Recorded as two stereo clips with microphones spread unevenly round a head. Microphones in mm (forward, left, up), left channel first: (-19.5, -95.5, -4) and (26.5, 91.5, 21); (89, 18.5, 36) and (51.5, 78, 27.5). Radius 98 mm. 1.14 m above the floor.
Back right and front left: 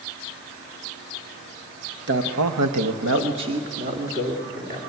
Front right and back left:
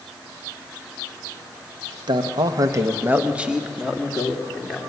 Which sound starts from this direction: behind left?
A man speaking, at 2.1 s.